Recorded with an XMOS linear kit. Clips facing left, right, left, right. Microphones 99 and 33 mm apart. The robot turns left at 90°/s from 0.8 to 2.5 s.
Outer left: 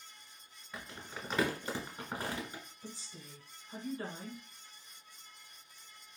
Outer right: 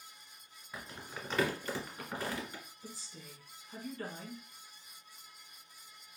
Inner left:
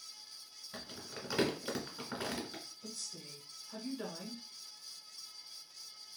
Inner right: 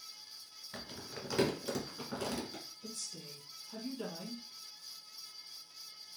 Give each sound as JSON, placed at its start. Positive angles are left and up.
{"t": 0.7, "sound": "crumpling", "side_deg": -5, "distance_m": 1.2}
{"t": 2.8, "sound": "a woman speaking", "side_deg": 20, "distance_m": 1.3}